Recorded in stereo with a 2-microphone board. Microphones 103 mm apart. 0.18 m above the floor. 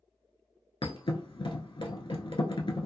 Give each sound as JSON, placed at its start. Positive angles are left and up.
{"t": 0.8, "sound": "a thud", "side_deg": 55, "distance_m": 0.6}